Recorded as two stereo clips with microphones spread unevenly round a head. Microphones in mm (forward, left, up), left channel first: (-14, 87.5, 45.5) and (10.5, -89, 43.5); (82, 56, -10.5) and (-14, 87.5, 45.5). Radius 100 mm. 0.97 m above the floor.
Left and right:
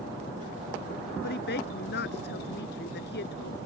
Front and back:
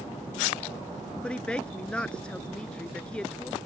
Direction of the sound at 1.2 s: 65° left.